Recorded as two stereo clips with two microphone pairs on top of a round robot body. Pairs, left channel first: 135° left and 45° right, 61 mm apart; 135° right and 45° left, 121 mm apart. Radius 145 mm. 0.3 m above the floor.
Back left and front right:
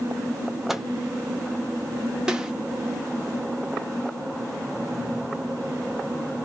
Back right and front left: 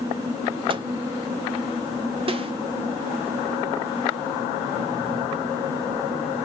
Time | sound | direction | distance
0.7 | a microwave | 45° left | 1.0 m
2.3 | a snare drum | 35° left | 1.4 m